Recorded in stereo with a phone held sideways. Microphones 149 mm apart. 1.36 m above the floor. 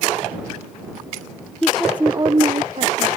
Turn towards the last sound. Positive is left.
turn(degrees=-60)  # may be behind; listen again after turning